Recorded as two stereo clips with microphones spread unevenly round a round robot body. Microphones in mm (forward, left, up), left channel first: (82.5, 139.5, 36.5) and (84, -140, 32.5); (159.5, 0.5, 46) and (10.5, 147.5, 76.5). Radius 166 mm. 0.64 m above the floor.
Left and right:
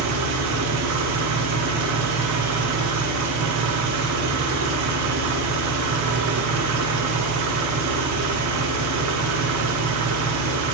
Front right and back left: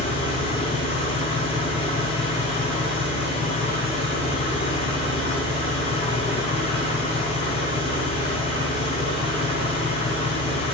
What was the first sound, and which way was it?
An engine running, 105° right.